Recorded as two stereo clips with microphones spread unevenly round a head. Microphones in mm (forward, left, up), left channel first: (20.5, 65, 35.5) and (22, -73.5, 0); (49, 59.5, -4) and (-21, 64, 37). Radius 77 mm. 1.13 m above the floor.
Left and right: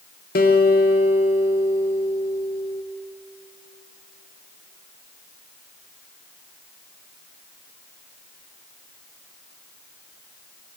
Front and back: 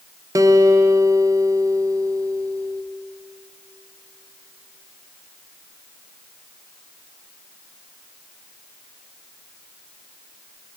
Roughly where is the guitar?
Behind left.